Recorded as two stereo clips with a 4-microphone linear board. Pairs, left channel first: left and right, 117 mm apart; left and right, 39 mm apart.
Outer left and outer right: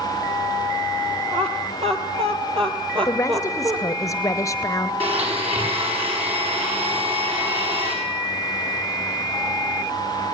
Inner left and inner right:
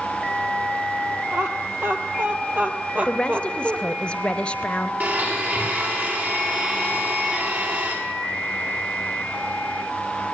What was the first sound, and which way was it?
Laughter, 65° right (ahead or behind).